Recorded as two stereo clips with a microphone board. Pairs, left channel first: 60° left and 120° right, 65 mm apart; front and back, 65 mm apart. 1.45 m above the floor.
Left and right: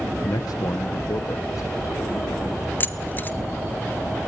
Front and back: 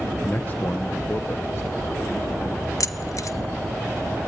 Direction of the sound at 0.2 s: 65° left.